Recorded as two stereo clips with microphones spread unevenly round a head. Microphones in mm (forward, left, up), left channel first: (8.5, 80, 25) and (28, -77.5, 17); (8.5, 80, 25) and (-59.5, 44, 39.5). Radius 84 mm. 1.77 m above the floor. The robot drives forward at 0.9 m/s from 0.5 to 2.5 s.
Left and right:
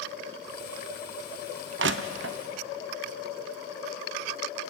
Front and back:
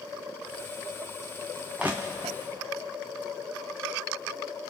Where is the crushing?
70° right, 0.9 m; by 2.4 s 110° right, 0.9 m.